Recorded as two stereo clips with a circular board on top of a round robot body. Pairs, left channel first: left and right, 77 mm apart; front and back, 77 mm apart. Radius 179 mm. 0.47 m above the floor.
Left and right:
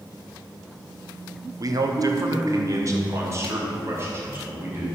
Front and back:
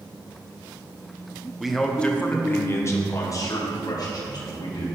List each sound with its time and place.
1.6 s a man speaking: 95° right, 1.1 m; by 5.0 s 30° right, 3 m